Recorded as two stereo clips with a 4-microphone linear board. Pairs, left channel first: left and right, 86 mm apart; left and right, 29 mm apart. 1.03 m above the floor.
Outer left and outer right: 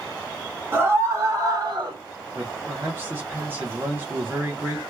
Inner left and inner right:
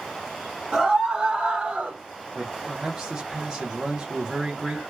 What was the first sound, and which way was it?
A scream, 25° right (ahead or behind).